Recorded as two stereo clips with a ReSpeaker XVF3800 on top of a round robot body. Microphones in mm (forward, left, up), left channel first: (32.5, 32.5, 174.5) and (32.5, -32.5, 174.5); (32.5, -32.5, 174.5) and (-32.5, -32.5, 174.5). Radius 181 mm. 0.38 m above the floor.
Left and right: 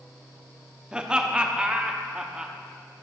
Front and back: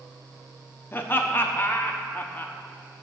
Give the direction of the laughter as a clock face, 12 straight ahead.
1 o'clock.